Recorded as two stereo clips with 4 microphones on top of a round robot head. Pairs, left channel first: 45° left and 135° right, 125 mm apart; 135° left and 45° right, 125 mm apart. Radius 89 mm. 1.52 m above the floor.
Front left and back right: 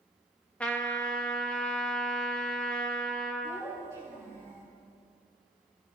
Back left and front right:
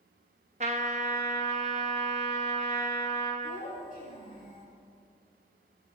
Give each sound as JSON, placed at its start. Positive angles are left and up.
{"t": 0.6, "sound": "a trumpet", "azimuth_deg": -35, "distance_m": 1.0}
{"t": 3.4, "sound": "a child speaking", "azimuth_deg": 110, "distance_m": 7.5}